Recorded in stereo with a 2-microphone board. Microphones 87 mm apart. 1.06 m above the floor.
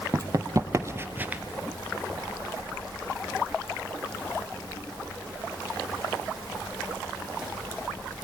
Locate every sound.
0.1 s running footsteps: 40° right (ahead or behind), 1.6 m; by 1.4 s 15° right (ahead or behind), 1.1 m